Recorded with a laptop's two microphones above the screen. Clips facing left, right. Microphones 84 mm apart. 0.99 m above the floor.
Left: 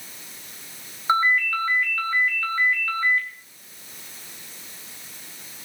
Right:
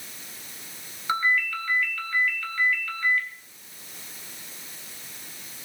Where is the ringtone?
30° left (ahead or behind), 4 m.